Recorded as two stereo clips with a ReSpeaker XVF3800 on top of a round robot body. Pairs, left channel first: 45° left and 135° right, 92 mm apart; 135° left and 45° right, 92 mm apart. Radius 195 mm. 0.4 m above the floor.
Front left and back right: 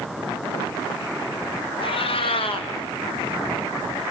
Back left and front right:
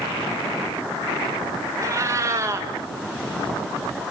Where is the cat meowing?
15° left, 1.0 m.